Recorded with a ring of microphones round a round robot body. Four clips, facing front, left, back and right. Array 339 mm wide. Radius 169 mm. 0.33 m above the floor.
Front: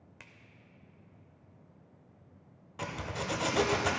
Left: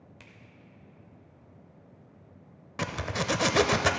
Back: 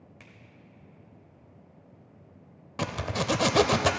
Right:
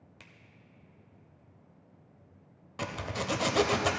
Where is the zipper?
155° left, 0.6 m.